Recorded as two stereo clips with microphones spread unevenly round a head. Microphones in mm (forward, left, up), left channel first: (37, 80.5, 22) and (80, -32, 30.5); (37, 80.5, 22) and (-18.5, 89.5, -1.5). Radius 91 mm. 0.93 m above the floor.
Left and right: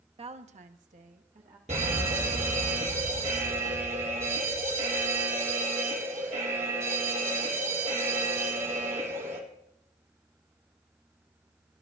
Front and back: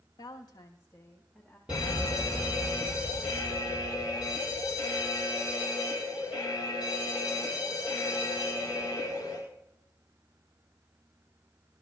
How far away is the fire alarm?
About 5 m.